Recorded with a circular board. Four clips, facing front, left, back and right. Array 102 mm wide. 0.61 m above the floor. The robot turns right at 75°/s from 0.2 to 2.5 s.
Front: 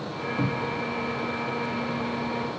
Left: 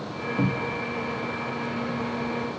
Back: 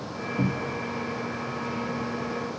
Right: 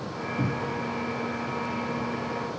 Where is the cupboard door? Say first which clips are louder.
Left 3 dB, even; 100° left, 0.9 m; by 0.8 s 130° left, 0.9 m.